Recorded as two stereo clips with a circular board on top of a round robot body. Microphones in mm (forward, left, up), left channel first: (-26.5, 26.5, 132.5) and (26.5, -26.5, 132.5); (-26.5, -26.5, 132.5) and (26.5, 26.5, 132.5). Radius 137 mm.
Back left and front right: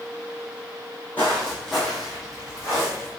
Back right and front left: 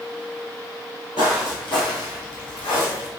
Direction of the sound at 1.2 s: 155° right.